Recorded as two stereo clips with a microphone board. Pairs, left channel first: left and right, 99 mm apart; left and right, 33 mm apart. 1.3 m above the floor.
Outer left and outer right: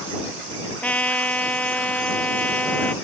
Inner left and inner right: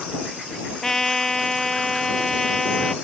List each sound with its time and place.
0.8 s a trumpet: 15° left (ahead or behind)